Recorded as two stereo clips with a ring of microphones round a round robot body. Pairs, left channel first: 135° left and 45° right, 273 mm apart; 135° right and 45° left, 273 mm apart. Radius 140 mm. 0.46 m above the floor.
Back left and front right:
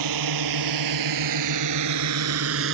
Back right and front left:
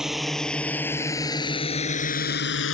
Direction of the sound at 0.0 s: 45° right.